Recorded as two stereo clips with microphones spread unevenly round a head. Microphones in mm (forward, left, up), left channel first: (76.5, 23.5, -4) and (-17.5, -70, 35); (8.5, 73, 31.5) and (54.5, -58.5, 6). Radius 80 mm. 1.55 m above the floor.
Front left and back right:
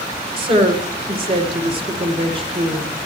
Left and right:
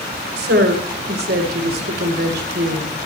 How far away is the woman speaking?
About 1.8 m.